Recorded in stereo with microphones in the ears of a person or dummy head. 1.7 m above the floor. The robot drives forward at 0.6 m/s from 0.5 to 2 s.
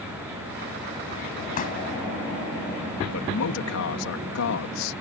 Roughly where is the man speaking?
Left.